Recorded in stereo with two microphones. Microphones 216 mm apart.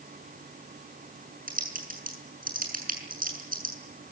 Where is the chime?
I don't hear a chime.